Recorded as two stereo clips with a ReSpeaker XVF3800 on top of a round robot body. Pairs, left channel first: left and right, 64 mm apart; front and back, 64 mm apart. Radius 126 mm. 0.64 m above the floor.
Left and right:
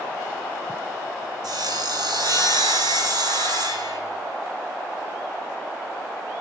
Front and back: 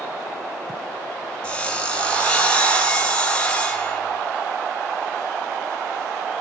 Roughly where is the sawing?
Right.